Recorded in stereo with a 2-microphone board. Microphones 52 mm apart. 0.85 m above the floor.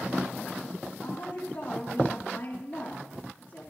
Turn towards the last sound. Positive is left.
turn(degrees=50)  # may be behind; listen again after turning